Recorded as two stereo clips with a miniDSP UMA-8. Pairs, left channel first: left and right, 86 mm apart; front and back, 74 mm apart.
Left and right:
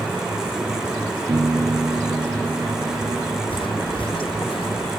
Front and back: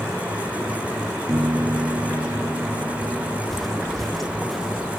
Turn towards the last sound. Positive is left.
turn(degrees=90)